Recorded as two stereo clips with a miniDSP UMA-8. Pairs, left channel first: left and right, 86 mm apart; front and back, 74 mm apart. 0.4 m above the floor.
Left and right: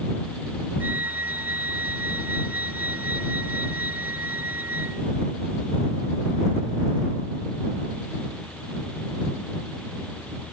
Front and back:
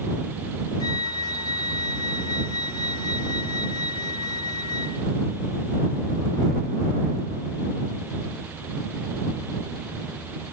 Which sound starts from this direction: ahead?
A flute, at 0.8 s.